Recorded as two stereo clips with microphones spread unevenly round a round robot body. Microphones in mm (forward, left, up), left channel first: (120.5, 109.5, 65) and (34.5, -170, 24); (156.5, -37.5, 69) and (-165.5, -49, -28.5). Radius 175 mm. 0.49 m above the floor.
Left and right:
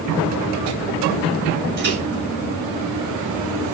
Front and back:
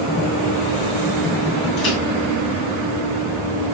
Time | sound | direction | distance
1.8 | a microwave | 50° right | 7.5 m